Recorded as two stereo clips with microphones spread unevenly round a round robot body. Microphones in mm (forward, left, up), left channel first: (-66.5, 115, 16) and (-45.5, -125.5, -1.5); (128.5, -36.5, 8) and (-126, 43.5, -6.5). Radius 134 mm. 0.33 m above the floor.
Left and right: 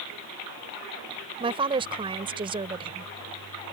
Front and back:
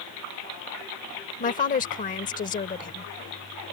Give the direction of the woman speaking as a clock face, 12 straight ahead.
2 o'clock.